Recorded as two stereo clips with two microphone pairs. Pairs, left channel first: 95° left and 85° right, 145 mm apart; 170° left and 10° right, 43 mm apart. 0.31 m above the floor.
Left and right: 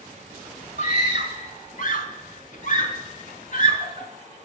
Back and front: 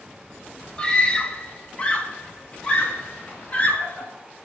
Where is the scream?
100° left, 2.5 m; by 4.1 s 110° left, 4 m.